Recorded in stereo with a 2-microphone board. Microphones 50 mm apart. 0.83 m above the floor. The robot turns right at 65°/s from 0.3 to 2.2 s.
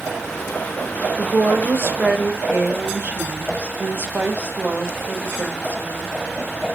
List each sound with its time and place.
1.2 s a woman speaking: 115° right, 0.8 m; by 6.1 s 45° right, 0.8 m